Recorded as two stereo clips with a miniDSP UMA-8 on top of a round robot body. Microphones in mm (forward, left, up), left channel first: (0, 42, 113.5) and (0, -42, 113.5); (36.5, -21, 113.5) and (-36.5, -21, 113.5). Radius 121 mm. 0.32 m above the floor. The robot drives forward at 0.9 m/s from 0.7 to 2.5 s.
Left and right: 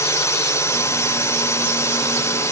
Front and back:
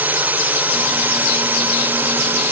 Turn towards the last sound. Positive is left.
turn(degrees=130)